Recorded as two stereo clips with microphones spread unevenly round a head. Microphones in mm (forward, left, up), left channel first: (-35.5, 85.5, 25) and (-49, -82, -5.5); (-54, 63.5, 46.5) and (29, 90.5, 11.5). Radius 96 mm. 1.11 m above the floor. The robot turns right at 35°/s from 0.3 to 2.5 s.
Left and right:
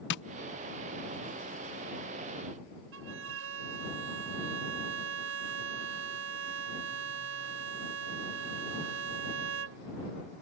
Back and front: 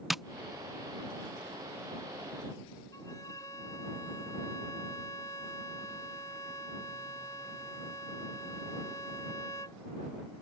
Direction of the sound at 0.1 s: 90° left.